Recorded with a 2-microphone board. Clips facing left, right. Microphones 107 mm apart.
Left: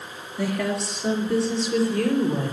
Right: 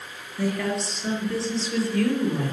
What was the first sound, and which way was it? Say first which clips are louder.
A woman speaking: even; 10° left (ahead or behind).